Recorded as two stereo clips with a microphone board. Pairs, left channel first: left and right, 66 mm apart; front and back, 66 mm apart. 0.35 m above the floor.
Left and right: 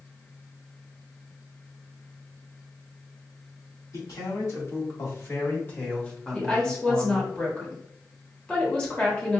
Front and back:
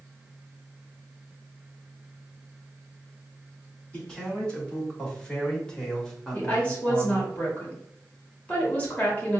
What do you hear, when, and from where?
3.9 s a man speaking: 75° left, 2.0 m; by 7.3 s 85° right, 1.0 m
6.3 s a woman speaking: 30° left, 1.2 m